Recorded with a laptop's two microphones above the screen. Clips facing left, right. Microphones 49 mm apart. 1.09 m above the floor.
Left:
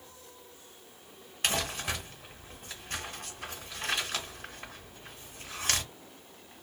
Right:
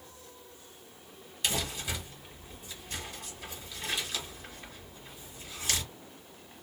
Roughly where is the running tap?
I don't hear a running tap.